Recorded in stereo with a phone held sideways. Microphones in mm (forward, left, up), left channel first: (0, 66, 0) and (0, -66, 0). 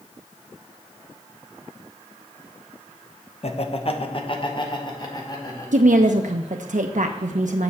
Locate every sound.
3.4 s laughter: 50° left (ahead or behind), 0.8 m; by 6.5 s 25° left (ahead or behind), 3 m
5.7 s a woman speaking: 70° right (ahead or behind), 0.6 m